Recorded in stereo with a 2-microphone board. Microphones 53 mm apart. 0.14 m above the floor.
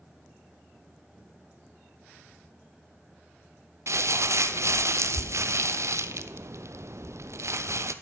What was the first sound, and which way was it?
Crumpling, 65° right (ahead or behind).